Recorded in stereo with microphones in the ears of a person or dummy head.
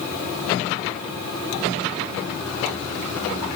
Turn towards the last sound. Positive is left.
No sound to turn to.